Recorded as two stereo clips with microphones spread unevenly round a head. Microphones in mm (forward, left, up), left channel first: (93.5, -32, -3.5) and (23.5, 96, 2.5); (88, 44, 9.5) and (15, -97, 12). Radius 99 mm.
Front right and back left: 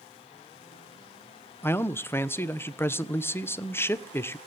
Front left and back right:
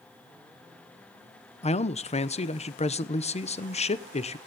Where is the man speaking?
15° left, 1.1 m.